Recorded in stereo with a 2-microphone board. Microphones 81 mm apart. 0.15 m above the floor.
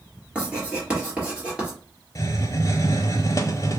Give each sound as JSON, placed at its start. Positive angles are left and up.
{"t": 0.3, "sound": "writing", "side_deg": -15, "distance_m": 2.0}
{"t": 2.1, "sound": "a hiss", "side_deg": 45, "distance_m": 0.5}